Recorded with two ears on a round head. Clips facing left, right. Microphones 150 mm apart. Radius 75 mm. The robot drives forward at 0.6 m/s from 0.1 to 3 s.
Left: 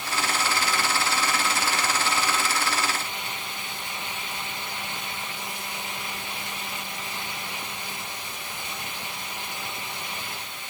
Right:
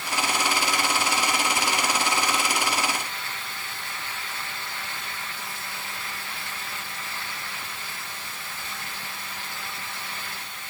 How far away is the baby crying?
I don't hear a baby crying.